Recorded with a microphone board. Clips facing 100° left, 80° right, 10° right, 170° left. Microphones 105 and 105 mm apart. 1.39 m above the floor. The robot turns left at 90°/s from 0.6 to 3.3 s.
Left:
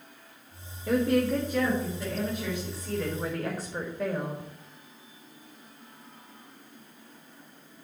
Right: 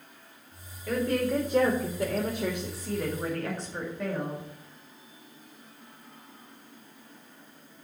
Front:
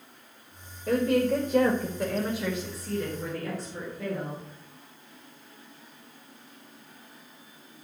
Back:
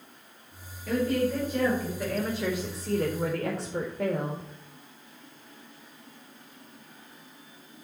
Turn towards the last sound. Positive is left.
turn(degrees=-175)